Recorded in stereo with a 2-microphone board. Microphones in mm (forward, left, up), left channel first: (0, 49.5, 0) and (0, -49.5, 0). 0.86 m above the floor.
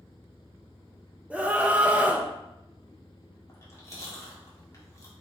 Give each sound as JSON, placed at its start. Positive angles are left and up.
{"t": 1.3, "sound": "a scream", "side_deg": -15, "distance_m": 0.8}
{"t": 3.5, "sound": "chewing", "side_deg": 30, "distance_m": 1.9}